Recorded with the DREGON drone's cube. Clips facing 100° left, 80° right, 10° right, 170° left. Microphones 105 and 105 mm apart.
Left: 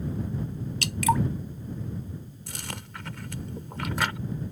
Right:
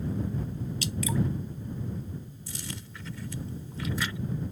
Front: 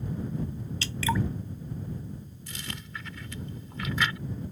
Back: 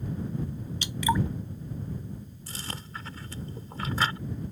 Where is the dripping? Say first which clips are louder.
Left 7 dB, back 2 dB; 95° left.